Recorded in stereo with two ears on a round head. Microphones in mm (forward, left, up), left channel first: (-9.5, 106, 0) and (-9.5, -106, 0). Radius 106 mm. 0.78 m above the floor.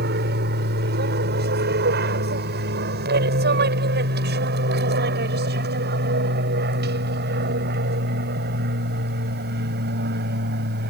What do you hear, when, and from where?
0.0 s an aircraft: 45° right (ahead or behind)